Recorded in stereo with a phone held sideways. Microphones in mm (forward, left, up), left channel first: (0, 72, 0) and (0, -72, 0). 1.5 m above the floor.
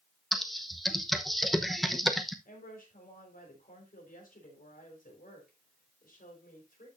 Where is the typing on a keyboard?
Centre (ahead or behind), 0.8 m.